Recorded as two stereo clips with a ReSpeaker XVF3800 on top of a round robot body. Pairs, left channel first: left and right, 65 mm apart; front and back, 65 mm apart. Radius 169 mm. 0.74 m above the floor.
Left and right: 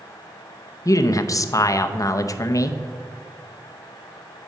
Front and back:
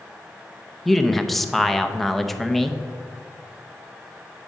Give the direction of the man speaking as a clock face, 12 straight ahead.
9 o'clock.